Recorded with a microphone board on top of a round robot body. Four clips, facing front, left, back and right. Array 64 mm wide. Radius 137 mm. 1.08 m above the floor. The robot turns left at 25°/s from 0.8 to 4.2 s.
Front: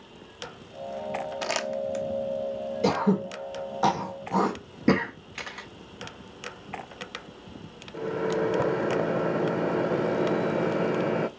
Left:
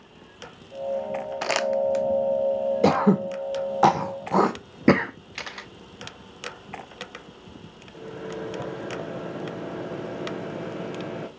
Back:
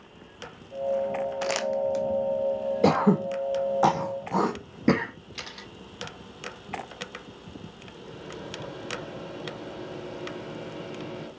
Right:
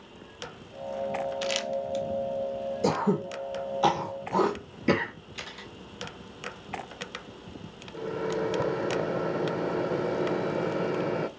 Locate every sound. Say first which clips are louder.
1.4 s crumpling: left 7 dB, back 3 dB; 90° left, 0.8 m; by 2.0 s 75° left, 0.8 m
2.8 s throat clearing: left 5 dB, back 3 dB; 125° left, 0.8 m; by 5.1 s 90° left, 0.8 m
5.3 s a camera shutter: left 6 dB, front 6 dB; 60° left, 0.6 m
7.9 s a microwave: right 5 dB, front 15 dB; 15° right, 0.7 m